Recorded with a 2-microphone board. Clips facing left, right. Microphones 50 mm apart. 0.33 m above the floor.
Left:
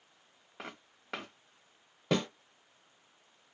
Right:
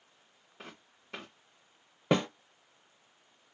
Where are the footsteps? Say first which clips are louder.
Left 4 dB; 75° left (ahead or behind), 1.3 m.